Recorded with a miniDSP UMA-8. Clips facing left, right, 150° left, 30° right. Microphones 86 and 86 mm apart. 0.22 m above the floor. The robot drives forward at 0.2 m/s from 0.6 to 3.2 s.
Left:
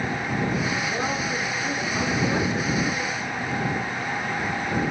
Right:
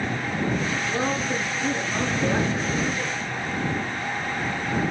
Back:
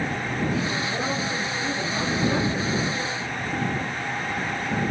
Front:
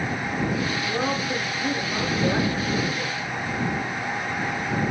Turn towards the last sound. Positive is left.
turn(degrees=-80)